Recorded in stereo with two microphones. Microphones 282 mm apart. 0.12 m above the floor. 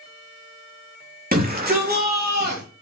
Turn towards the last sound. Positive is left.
turn(degrees=-35)  # may be behind; listen again after turning